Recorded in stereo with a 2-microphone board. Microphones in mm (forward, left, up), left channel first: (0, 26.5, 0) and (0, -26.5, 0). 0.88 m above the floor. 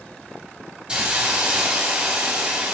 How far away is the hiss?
About 3 m.